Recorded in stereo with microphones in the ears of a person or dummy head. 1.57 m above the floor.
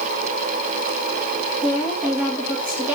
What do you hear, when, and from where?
1.6 s a woman speaking: 10° right (ahead or behind), 2.5 m